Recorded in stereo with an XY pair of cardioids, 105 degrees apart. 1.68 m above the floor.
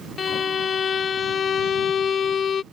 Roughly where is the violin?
Ahead left.